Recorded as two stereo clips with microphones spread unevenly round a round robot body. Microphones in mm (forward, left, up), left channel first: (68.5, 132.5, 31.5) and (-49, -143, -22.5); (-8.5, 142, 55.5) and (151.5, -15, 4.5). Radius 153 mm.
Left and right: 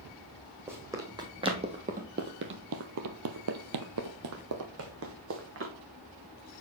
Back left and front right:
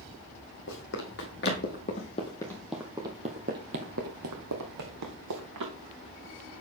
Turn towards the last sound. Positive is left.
turn(degrees=-60)